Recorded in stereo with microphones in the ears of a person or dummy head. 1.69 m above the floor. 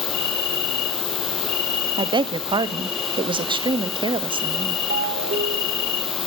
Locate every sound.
0.0 s an insect: 75° left (ahead or behind), 8 m
2.0 s a woman speaking: 25° right (ahead or behind), 1.0 m
4.9 s a ringtone: 45° right (ahead or behind), 2.5 m